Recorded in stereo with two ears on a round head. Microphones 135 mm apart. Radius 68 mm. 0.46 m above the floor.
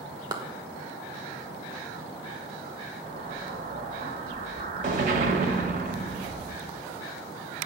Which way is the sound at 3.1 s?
55° right (ahead or behind).